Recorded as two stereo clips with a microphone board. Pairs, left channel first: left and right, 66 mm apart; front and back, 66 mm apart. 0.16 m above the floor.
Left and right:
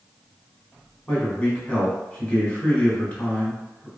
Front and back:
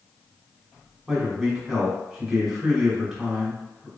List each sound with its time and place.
1.1 s a man speaking: 105° left, 1.0 m